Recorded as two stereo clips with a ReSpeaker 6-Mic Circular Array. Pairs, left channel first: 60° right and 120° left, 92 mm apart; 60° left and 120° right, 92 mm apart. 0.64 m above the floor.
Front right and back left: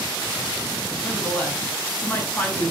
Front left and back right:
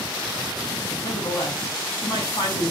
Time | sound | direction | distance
1.0 | a woman speaking | 15° left | 6 m